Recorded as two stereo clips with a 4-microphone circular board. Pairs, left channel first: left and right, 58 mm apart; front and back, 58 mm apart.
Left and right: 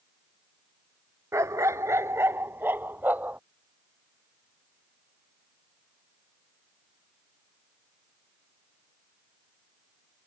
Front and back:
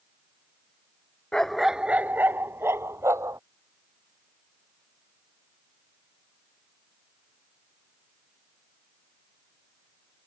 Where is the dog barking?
75° right; by 3.4 s 150° right.